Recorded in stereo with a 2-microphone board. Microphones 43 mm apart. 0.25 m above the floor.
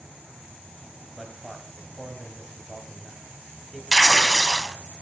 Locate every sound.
1.1 s a man speaking: 5° right (ahead or behind), 1.3 m
3.9 s tearing paper: 5° right (ahead or behind), 0.5 m